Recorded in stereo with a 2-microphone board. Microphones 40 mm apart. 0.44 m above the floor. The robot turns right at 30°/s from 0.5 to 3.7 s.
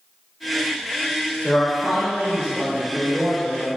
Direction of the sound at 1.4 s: 155° left.